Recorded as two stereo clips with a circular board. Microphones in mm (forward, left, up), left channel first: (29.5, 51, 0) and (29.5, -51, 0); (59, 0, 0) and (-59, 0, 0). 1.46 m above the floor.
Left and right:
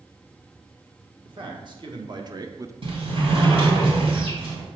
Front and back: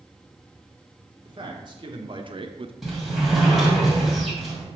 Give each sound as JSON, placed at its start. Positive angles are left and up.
{"t": 1.2, "sound": "a man speaking", "azimuth_deg": -130, "distance_m": 2.0}
{"t": 2.8, "sound": "a sliding door", "azimuth_deg": -90, "distance_m": 2.5}